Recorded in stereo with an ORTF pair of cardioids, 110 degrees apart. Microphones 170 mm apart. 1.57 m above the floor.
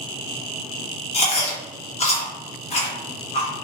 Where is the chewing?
40° left, 1.2 m.